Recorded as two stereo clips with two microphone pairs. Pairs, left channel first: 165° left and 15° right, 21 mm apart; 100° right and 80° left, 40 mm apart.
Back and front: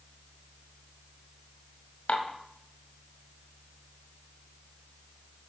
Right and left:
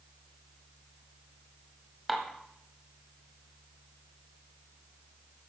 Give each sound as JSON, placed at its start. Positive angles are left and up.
{"t": 2.1, "sound": "dishes clattering", "azimuth_deg": 165, "distance_m": 1.3}